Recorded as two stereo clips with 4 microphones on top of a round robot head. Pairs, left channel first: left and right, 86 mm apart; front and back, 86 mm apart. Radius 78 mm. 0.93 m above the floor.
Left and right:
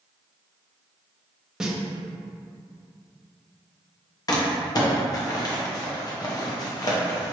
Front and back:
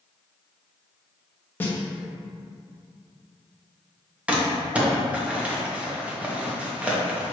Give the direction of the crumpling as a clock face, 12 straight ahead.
8 o'clock.